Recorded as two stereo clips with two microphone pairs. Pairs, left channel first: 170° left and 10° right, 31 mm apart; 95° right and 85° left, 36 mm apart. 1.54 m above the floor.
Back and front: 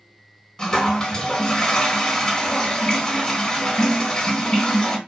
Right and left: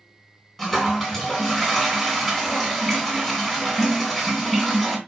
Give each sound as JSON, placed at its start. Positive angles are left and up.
{"t": 0.6, "sound": "a toilet flushing", "azimuth_deg": -165, "distance_m": 1.3}